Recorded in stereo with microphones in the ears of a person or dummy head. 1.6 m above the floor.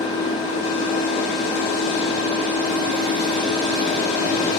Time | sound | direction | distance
0.0 | an engine running | 30° left (ahead or behind) | 1.9 m